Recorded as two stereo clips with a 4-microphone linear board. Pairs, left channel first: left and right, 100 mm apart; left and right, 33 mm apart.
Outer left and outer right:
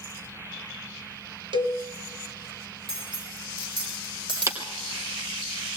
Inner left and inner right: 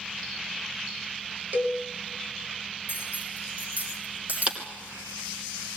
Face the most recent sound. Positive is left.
turn(degrees=-35)  # may be behind; listen again after turning